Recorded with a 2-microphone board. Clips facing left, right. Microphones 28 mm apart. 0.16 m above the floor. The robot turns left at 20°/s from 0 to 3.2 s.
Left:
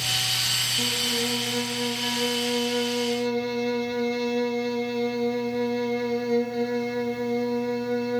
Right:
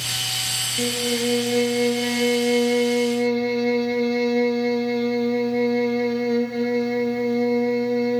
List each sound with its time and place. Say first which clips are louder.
0.8 s a violin: right 2 dB; 100° right, 1.0 m; by 8.2 s 145° right, 1.0 m